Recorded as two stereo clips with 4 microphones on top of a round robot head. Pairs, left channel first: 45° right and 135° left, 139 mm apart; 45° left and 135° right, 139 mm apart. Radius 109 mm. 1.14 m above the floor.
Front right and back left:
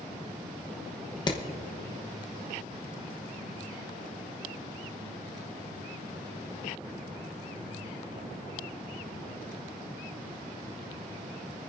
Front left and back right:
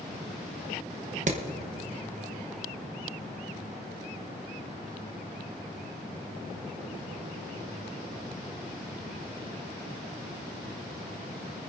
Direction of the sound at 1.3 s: 105° right.